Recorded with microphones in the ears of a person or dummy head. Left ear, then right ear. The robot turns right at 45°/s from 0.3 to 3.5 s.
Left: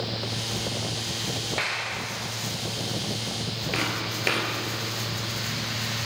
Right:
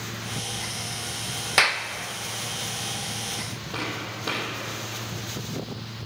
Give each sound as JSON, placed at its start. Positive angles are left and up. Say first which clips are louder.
{"t": 1.6, "sound": "a clap", "louder": "right 9 dB", "side_deg": -50, "distance_m": 0.5}
{"t": 3.7, "sound": "footsteps", "louder": "left 3 dB", "side_deg": 35, "distance_m": 2.0}